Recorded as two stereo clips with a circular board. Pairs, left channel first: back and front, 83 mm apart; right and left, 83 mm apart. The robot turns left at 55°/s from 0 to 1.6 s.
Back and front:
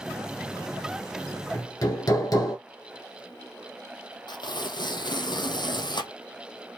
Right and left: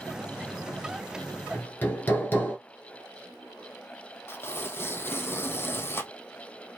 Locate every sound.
1.5 s hammering: 145° right, 1.5 m; by 2.6 s 150° right, 1.5 m
4.3 s tearing paper: 150° right, 0.7 m